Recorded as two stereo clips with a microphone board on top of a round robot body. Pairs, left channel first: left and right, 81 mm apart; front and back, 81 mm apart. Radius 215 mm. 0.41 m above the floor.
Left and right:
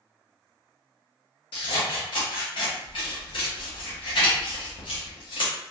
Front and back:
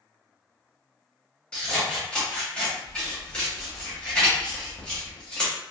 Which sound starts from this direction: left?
Scissors, at 1.5 s.